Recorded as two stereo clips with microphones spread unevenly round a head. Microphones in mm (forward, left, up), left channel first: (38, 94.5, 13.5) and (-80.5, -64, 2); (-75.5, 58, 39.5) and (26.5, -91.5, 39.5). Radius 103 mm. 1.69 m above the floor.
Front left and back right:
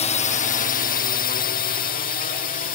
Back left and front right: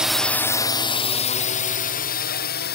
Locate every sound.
0.0 s a drone: 25° left; by 2.8 s 100° left